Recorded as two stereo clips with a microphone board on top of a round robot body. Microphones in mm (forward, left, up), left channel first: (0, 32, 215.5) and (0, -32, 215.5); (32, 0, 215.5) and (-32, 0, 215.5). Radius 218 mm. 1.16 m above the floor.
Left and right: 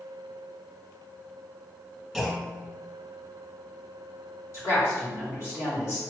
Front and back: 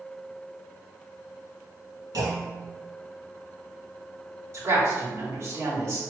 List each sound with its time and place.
2.1 s a clunk: 175° left, 2.0 m
4.5 s a woman speaking: 130° left, 2 m